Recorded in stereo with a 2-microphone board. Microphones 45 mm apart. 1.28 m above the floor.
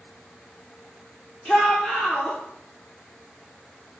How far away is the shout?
About 0.9 m.